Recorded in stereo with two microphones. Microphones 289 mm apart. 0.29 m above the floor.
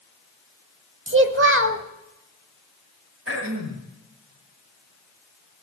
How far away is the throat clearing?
About 2.5 m.